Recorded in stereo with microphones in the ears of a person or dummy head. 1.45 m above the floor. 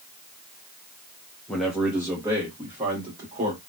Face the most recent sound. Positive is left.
turn(degrees=-30)  # may be behind; listen again after turning